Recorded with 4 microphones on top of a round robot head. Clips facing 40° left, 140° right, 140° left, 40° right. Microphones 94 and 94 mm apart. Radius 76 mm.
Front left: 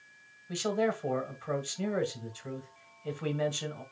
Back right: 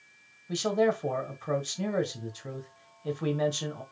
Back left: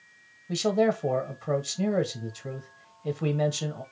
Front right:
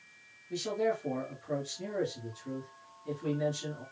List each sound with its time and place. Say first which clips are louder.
0.5 s a man speaking: back right 4 dB, back left 7 dB; 150° left, 1.3 m